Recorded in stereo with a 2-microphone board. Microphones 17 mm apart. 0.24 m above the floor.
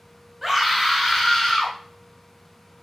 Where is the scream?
15° right (ahead or behind), 1.5 m; by 1.8 s 25° left (ahead or behind), 1.7 m.